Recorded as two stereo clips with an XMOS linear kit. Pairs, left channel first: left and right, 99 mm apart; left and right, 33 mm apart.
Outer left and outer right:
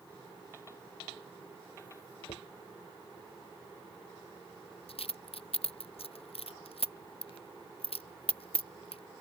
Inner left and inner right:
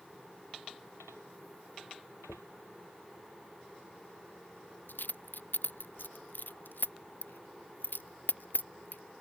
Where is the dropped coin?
70° left (ahead or behind).